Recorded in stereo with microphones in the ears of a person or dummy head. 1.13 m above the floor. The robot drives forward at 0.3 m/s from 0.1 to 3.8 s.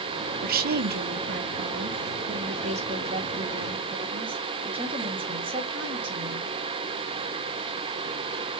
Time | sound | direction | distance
0.4 | a woman speaking | 45° right (ahead or behind) | 0.7 m